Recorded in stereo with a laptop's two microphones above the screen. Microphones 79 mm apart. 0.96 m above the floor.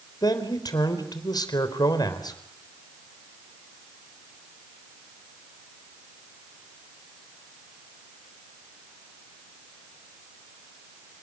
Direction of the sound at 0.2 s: 60° left (ahead or behind).